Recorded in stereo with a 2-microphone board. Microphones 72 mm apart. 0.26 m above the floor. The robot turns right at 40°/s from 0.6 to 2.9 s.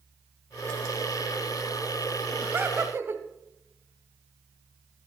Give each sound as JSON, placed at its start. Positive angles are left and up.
{"t": 2.4, "sound": "laughter", "side_deg": -30, "distance_m": 1.1}